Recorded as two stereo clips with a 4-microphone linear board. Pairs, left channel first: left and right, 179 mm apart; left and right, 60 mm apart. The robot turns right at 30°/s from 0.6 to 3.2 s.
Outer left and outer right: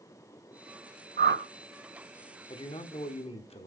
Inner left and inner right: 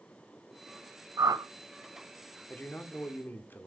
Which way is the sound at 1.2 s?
75° right (ahead or behind).